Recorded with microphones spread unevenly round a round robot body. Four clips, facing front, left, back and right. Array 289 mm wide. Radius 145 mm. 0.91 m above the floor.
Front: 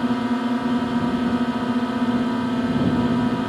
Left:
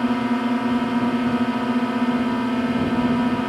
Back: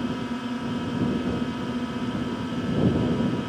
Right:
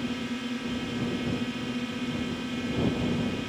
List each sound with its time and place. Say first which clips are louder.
0.0 s a drone: left 12 dB, front 7 dB; 50° left